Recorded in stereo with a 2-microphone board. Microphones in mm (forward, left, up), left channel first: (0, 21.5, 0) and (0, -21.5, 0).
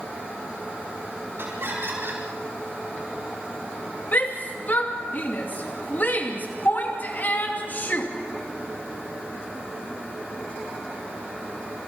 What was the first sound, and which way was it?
Laughter, 65° right (ahead or behind).